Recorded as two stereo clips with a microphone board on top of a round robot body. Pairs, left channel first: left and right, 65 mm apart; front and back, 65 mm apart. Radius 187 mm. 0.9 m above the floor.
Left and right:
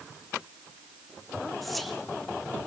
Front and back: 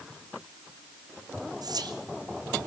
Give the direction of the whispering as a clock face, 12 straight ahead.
6 o'clock.